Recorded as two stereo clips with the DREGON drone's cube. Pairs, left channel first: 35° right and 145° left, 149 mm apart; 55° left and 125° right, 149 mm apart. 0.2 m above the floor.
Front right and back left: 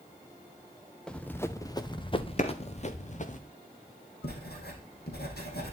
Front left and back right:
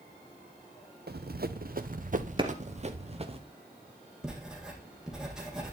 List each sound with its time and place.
1.1 s running footsteps: 120° right, 1.2 m; by 3.4 s 70° right, 2 m
2.4 s a clap: 70° right, 2.5 m
4.2 s writing: 40° right, 4.5 m